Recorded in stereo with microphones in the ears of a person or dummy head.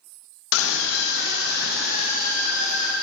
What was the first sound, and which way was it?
A scream, 90° left.